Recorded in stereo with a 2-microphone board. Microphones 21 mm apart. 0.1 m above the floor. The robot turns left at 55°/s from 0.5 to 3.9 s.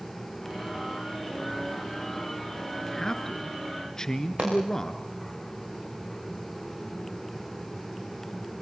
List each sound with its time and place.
2.9 s a man speaking: 15° left (ahead or behind), 1.4 m; by 5.0 s 25° left (ahead or behind), 1.4 m
4.4 s a pop: 70° right (ahead or behind), 8.5 m